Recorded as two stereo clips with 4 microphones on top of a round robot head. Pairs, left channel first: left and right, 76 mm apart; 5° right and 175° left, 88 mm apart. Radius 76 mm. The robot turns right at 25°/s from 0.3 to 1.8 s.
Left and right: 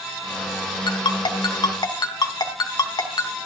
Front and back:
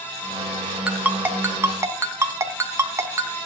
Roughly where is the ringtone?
Left.